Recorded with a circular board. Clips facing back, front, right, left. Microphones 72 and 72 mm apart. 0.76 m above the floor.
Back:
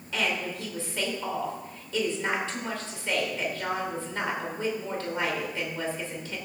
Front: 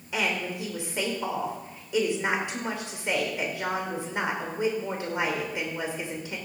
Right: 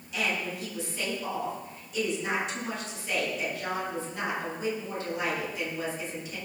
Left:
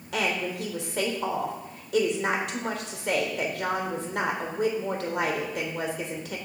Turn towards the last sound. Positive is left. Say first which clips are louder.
# front 1 dB, left 3 dB
turn(degrees=70)